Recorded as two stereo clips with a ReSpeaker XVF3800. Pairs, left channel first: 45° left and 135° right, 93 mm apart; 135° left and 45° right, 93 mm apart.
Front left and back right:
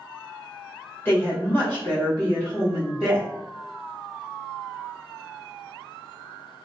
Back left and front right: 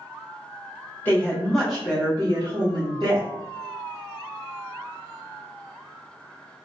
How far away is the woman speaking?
About 1.2 m.